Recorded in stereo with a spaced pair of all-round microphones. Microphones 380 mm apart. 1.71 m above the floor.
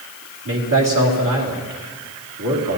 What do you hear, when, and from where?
0.5 s a man speaking: 60° right (ahead or behind), 2.5 m